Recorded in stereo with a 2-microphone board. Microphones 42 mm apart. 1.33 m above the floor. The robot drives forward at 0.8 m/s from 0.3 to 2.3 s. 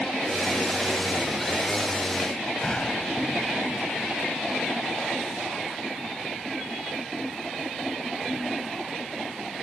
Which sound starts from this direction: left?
A door slam, at 2.6 s.